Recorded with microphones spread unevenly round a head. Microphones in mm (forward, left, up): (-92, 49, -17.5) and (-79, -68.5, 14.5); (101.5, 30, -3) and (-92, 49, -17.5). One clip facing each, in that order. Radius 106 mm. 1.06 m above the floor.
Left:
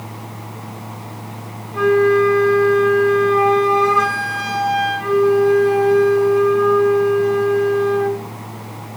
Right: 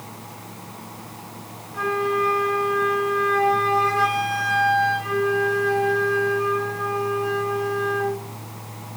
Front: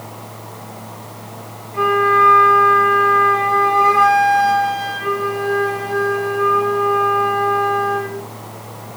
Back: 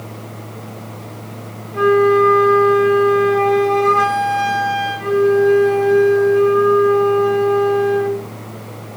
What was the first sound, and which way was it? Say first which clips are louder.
A flute: left 10 dB, back 6 dB; 100° left.